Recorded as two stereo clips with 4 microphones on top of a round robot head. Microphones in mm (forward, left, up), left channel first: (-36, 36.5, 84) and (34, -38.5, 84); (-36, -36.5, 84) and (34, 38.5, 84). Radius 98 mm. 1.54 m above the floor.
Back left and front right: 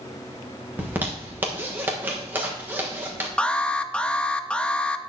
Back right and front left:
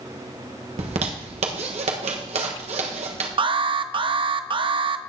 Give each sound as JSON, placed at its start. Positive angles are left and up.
{"t": 0.8, "sound": "a zipper", "azimuth_deg": 25, "distance_m": 1.3}
{"t": 3.4, "sound": "an alarm", "azimuth_deg": 55, "distance_m": 0.7}